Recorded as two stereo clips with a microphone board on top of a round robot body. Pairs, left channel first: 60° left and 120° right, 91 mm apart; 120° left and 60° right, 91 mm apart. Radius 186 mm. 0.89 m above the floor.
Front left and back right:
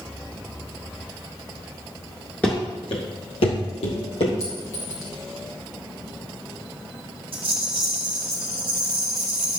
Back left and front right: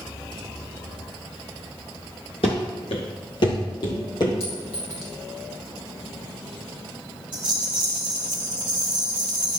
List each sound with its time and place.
2.4 s running footsteps: 135° left, 0.9 m; by 4.3 s 75° left, 3 m
4.4 s a clink: 115° left, 2.5 m
7.3 s a rattle: 95° right, 0.6 m